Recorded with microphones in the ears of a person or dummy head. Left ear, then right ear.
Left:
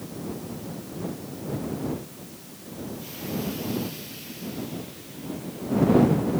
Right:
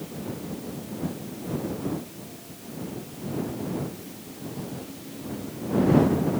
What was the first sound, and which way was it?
Only background noise.